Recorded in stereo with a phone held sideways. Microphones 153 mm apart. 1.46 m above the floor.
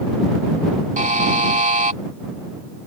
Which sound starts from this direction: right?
A buzzer, at 1.0 s.